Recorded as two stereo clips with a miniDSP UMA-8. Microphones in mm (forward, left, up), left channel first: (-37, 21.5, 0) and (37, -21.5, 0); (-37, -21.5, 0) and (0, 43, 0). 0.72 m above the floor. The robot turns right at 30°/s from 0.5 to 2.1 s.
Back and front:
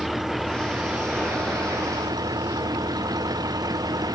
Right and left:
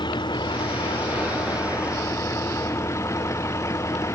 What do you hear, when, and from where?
0.0 s an engine running: 120° right; by 4.2 s 70° right